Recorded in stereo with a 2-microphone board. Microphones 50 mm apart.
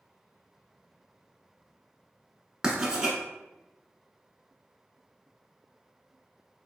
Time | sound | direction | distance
2.6 | writing | 20° right (ahead or behind) | 0.8 m